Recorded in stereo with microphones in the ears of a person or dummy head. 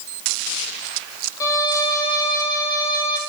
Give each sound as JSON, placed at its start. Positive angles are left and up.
{"t": 1.4, "sound": "a violin", "side_deg": 20, "distance_m": 2.0}